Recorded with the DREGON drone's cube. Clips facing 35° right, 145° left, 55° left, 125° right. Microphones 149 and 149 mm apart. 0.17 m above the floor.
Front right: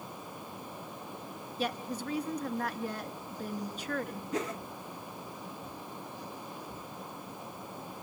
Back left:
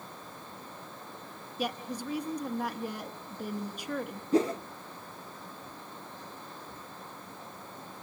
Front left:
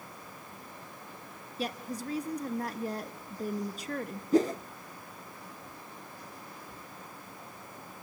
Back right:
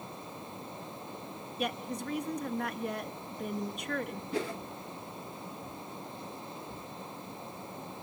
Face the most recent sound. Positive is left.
turn(degrees=95)